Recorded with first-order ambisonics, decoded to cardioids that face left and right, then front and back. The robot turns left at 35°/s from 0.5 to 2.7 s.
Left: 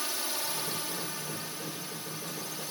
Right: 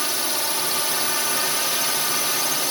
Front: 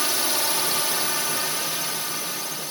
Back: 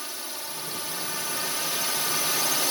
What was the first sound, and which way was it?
A drone, 40° right.